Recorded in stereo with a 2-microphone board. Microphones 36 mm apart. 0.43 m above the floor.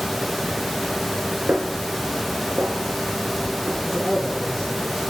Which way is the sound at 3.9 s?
Centre (ahead or behind).